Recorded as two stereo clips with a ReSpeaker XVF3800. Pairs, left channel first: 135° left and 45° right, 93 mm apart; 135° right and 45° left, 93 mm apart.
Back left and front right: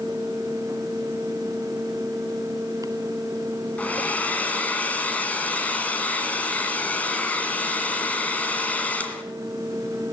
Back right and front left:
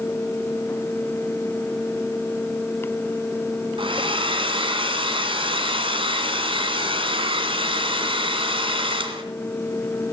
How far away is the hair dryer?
About 1.8 m.